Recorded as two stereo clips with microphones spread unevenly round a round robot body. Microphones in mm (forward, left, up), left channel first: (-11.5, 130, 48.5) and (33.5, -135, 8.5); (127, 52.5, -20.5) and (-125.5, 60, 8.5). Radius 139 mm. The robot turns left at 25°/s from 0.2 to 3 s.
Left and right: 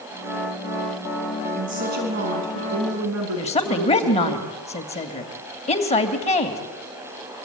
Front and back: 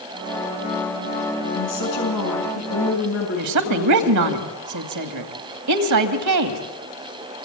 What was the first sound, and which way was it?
A woman speaking, 15° right.